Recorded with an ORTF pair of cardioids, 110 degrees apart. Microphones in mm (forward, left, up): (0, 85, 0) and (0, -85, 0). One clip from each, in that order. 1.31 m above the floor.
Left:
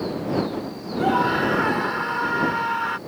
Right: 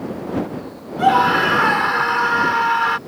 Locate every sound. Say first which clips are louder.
1.0 s a scream: right 6 dB; 45° right